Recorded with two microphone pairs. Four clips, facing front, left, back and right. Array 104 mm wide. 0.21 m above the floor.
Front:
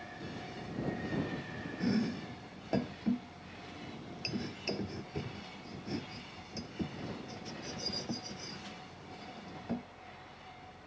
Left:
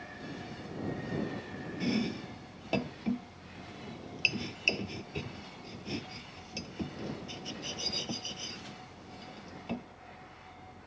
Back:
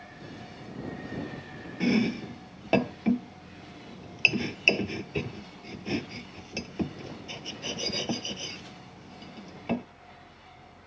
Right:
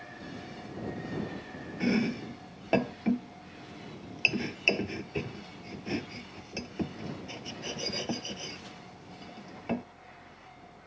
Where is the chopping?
150° right.